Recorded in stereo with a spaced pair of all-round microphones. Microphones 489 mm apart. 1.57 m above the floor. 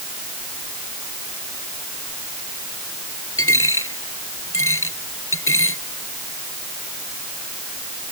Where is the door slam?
No door slam in this recording.